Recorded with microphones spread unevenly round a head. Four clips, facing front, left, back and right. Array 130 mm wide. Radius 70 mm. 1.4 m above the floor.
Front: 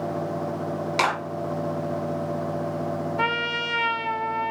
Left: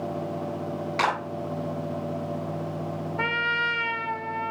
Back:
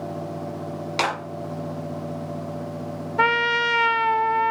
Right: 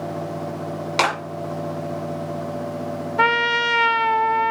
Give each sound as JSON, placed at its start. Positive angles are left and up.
{"t": 1.0, "sound": "a clap", "azimuth_deg": -85, "distance_m": 7.5}
{"t": 3.2, "sound": "a trumpet", "azimuth_deg": -125, "distance_m": 0.7}